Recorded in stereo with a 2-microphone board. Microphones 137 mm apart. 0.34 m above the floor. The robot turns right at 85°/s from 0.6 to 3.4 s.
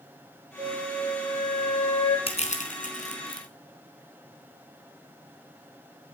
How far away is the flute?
About 9 m.